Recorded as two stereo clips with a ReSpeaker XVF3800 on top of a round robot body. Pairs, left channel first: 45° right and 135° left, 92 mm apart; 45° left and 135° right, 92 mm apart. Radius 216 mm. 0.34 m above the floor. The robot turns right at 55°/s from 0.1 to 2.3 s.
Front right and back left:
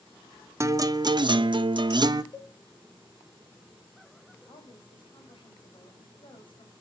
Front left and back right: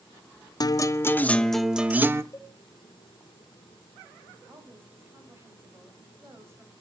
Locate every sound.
0.6 s a guitar: 80° left, 0.7 m; by 2.2 s 170° left, 0.7 m
2.3 s a cowbell: 10° right, 2.5 m
4.5 s a woman speaking: 70° right, 3.5 m